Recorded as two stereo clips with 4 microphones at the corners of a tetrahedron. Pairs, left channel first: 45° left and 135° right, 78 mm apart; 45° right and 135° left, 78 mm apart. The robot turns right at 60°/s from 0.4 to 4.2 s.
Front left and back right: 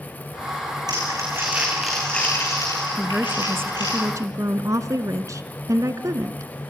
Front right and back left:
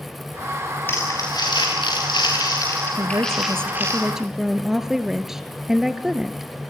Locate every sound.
0.9 s crumpling: 105° right, 6.5 m; by 4.0 s 80° left, 6.5 m
3.0 s a woman speaking: 145° left, 1.4 m; by 6.5 s 140° right, 1.4 m